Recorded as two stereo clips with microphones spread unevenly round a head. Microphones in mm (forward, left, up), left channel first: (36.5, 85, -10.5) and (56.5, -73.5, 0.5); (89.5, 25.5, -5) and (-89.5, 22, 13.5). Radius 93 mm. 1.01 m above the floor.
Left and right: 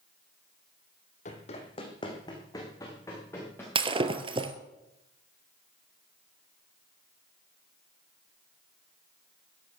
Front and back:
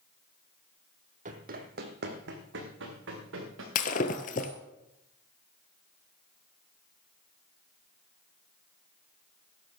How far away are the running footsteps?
About 1.9 m.